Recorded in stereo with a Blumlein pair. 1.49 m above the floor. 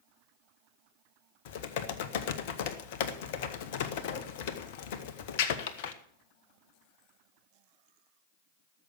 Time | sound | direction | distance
1.4 | typing on a keyboard | 50° left | 1.0 m